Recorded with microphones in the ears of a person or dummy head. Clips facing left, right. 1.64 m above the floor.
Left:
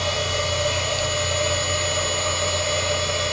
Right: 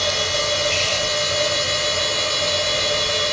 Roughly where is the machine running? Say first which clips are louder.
Right 1 dB; right.